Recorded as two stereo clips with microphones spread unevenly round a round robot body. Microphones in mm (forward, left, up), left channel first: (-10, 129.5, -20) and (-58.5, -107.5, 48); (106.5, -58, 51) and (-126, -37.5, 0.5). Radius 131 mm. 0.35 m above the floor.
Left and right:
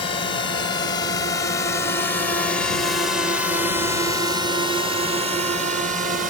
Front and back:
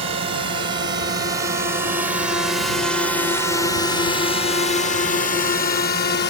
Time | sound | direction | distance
0.0 | a drone | 125° left | ?